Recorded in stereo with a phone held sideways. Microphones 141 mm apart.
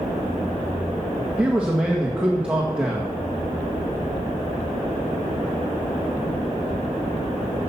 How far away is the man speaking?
About 1.5 m.